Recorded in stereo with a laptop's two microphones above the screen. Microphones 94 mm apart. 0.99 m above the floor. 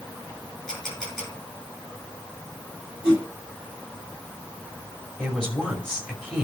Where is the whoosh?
15° left (ahead or behind), 6.5 m.